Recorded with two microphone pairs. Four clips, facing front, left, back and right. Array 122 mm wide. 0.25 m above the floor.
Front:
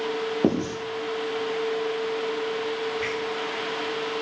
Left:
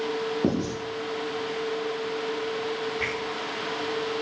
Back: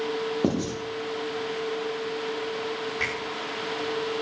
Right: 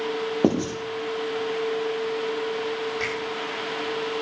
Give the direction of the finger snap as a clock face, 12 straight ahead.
5 o'clock.